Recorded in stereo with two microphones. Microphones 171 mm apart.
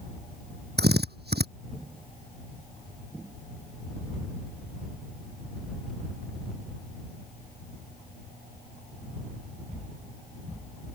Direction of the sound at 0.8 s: 75° right (ahead or behind).